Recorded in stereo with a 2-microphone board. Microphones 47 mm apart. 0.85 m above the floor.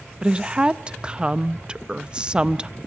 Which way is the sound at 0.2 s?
20° right (ahead or behind).